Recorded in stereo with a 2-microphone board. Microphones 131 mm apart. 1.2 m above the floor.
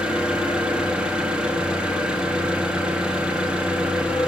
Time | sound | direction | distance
0.0 | an engine running | 10° right (ahead or behind) | 1.4 m